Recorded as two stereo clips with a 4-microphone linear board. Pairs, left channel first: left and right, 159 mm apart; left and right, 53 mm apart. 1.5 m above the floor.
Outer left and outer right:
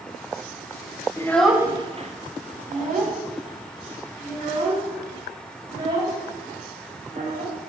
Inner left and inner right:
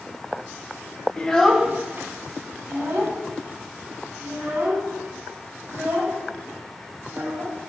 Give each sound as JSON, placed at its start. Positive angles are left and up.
{"t": 1.2, "sound": "a child speaking", "side_deg": 20, "distance_m": 0.7}